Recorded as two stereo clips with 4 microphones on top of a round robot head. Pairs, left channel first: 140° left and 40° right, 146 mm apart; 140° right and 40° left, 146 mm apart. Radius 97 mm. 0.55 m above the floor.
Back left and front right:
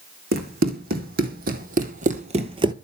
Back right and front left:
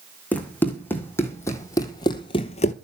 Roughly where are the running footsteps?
Ahead right.